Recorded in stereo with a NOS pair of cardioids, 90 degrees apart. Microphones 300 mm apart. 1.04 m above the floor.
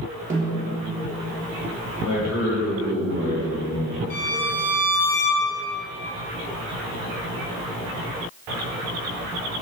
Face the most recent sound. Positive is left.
turn(degrees=65)